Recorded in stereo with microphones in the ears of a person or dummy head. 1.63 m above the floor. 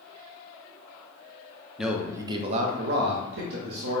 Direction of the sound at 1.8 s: 5° left (ahead or behind).